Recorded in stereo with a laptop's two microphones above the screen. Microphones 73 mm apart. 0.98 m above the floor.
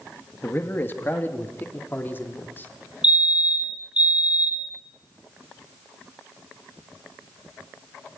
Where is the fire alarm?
15° right (ahead or behind), 1.6 m.